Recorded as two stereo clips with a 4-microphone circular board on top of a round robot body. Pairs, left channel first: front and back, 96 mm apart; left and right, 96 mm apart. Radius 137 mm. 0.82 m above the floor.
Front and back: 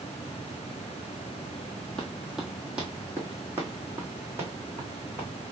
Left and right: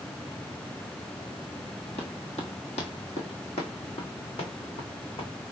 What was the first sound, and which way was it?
Running footsteps, 85° left.